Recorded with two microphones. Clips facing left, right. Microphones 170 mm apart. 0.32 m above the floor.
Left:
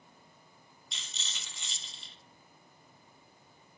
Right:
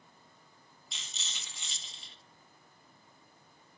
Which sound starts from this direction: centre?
A rattle, at 0.9 s.